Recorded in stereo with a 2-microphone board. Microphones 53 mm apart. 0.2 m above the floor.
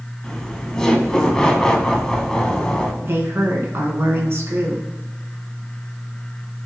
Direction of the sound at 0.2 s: 10° left (ahead or behind).